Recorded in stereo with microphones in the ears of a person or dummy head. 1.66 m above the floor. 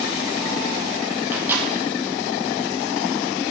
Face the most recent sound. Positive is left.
turn(degrees=-10)  # may be behind; listen again after turning